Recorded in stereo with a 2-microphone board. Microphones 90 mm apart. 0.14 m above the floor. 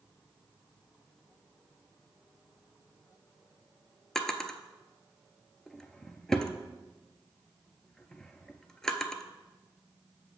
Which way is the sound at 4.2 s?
5° left (ahead or behind).